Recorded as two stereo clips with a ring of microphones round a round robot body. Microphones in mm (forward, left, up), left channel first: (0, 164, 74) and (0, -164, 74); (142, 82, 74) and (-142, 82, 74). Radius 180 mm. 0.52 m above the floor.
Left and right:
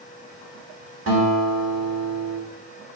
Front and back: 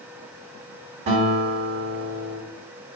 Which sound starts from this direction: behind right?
A guitar, at 1.1 s.